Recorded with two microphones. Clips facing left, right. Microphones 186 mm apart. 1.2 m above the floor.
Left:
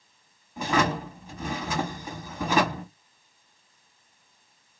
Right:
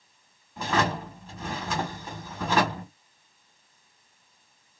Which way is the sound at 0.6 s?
15° left (ahead or behind).